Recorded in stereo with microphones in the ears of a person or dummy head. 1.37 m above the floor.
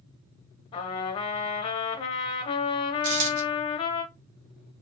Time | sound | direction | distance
0.7 | a trumpet | 30° left (ahead or behind) | 0.8 m
3.0 | a dropped coin | 65° right (ahead or behind) | 1.7 m